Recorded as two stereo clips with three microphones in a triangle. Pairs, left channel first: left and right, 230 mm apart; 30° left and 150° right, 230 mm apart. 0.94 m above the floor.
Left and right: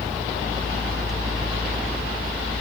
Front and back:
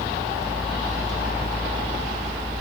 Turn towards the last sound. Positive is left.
No sound to turn to.